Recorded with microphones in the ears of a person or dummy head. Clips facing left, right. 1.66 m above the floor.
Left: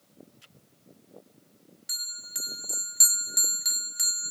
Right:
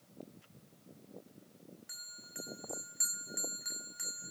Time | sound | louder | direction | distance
1.9 | a bell | left 1 dB | 50° left (ahead or behind) | 0.6 m